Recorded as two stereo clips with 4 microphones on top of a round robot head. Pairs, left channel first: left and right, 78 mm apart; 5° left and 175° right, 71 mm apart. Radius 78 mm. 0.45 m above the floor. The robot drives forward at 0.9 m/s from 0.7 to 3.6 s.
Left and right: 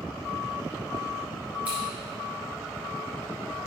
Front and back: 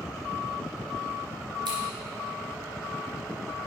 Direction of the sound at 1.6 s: 165° right.